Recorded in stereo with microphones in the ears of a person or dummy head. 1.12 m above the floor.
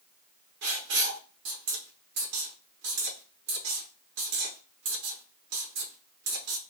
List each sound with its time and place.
0.6 s writing: 70° right (ahead or behind), 0.7 m